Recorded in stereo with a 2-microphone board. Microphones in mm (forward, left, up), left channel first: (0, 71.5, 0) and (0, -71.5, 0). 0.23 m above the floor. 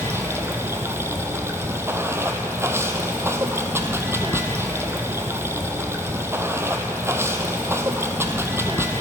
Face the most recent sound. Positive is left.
turn(degrees=-20)  # may be behind; listen again after turning